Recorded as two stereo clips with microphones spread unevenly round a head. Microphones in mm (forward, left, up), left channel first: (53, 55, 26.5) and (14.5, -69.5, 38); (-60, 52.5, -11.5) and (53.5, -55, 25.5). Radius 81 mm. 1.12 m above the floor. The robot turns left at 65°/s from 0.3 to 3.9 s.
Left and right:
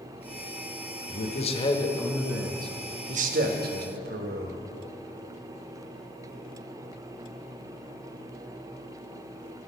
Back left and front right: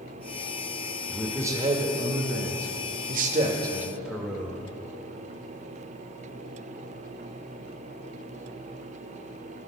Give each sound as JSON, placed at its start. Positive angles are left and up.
{"t": 1.1, "sound": "a man speaking", "azimuth_deg": 55, "distance_m": 1.3}